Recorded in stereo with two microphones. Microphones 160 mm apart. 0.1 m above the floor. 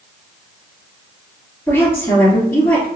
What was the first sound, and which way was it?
A woman speaking, 15° left (ahead or behind).